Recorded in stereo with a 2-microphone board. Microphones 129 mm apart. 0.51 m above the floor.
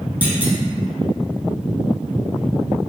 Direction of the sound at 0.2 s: 15° right (ahead or behind).